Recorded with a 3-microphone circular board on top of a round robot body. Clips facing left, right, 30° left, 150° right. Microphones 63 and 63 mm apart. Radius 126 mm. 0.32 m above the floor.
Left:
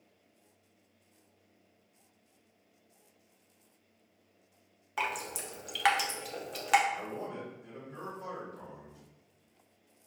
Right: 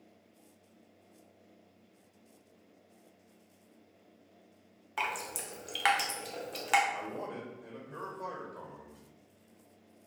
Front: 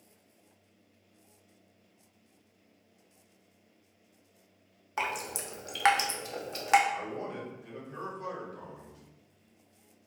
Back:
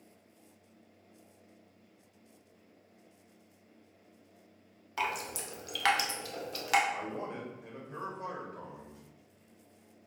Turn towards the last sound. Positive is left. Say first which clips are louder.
# even, front 1 dB
turn(degrees=-90)